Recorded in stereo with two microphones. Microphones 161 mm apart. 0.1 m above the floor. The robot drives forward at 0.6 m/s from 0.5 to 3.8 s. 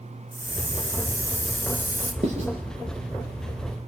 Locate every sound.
0.3 s a hiss: 10° left (ahead or behind), 4.5 m; by 2.1 s 15° left (ahead or behind), 3.5 m
2.2 s writing: 45° right (ahead or behind), 7 m